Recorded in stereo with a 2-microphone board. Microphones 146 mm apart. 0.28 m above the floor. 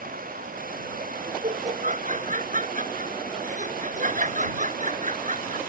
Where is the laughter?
60° right (ahead or behind).